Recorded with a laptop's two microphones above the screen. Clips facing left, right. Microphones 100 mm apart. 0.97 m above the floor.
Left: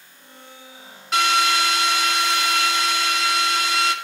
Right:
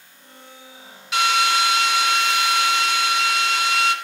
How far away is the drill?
About 2 m.